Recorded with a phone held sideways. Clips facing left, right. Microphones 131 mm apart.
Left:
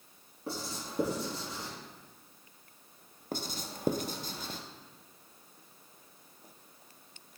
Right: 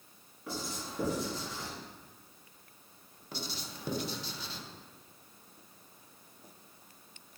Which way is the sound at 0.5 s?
35° left (ahead or behind).